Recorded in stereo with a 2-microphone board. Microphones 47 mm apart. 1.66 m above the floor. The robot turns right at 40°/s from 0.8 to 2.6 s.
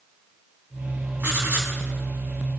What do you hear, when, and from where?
1.2 s writing: 55° right (ahead or behind), 3 m; by 1.8 s 40° right (ahead or behind), 3 m